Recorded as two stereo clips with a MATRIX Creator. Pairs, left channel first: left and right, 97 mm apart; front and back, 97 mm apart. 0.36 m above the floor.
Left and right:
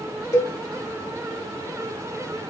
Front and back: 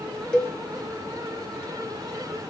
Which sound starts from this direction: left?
A cowbell, at 0.3 s.